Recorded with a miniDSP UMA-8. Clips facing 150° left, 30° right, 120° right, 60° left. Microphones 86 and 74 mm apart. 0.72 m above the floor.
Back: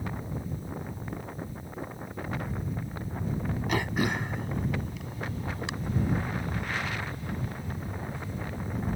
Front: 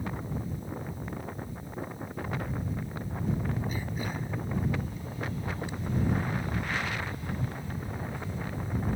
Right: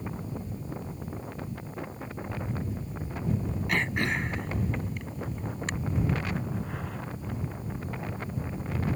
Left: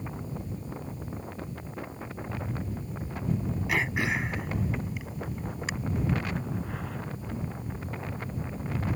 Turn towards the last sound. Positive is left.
turn(degrees=145)